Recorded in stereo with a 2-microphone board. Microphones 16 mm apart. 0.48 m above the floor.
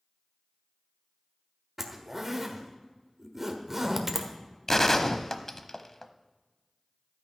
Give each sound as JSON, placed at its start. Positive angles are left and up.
{"t": 1.8, "sound": "a zipper", "side_deg": -20, "distance_m": 1.3}
{"t": 4.7, "sound": "a gunshot", "side_deg": 25, "distance_m": 0.7}